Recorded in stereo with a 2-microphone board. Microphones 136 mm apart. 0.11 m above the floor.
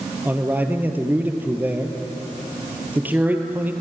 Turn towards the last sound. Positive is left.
turn(degrees=-15)  # may be behind; listen again after turning